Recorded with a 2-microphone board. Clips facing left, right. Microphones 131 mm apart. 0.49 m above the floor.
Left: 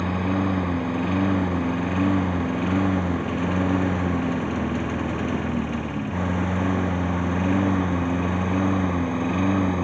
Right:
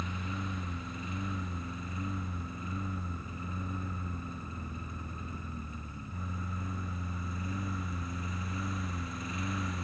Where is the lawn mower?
70° left (ahead or behind); by 9.8 s 65° left (ahead or behind).